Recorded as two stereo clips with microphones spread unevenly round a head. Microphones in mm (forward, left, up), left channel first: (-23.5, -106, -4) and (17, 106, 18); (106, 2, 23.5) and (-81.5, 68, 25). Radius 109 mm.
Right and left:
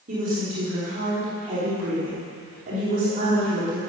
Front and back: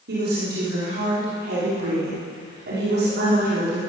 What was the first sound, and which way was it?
A woman speaking, 130° left.